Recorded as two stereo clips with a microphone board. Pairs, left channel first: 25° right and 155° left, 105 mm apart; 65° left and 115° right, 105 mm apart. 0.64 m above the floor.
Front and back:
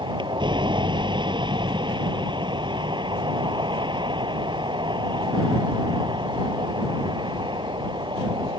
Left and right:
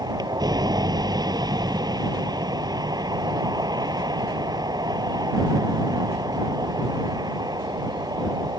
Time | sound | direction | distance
0.0 | a vehicle | 160° right | ?